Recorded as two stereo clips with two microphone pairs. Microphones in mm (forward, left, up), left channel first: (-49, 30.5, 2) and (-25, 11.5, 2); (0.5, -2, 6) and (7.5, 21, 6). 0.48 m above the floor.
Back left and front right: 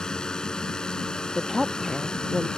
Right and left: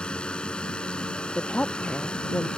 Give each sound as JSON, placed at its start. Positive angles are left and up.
{"t": 0.0, "sound": "a drone", "azimuth_deg": -150}
{"t": 1.4, "sound": "a woman speaking", "azimuth_deg": -130}